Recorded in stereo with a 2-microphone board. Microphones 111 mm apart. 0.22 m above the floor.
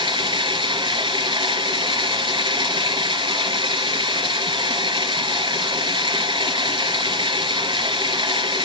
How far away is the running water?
About 3.5 m.